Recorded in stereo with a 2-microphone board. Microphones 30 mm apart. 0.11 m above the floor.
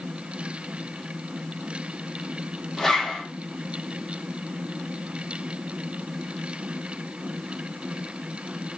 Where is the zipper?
10° left (ahead or behind), 3.5 m.